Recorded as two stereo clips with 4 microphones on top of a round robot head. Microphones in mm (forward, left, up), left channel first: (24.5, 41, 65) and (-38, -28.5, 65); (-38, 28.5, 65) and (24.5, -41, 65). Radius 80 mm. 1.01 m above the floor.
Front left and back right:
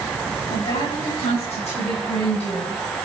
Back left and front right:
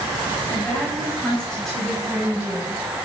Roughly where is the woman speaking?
Ahead left.